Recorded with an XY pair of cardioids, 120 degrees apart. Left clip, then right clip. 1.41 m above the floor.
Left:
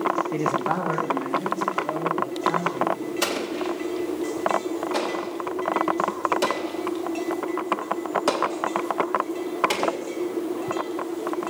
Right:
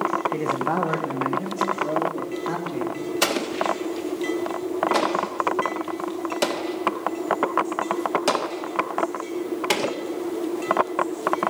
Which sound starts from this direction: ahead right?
An explosion, at 3.2 s.